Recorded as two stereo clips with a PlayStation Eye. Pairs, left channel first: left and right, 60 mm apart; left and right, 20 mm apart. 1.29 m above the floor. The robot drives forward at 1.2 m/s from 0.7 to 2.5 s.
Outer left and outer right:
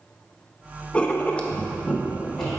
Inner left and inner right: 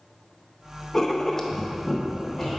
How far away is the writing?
About 0.6 m.